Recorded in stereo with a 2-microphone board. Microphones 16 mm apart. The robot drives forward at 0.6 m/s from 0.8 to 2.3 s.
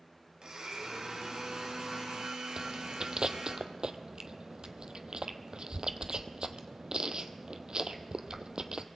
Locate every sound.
0.4 s a blender: 55° right (ahead or behind), 4 m; by 3.6 s 60° right (ahead or behind), 3.5 m
2.6 s chewing: 55° right (ahead or behind), 0.9 m